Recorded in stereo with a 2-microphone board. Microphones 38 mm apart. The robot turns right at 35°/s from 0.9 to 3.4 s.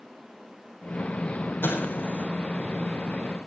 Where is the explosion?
75° left (ahead or behind), 8 m; by 2.2 s 55° left (ahead or behind), 8 m.